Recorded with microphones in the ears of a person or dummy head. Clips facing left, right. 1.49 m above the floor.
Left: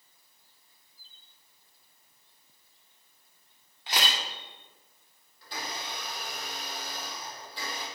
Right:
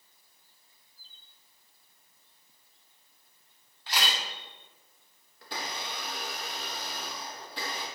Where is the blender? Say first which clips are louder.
Right 1 dB; 55° right (ahead or behind), 1.2 m.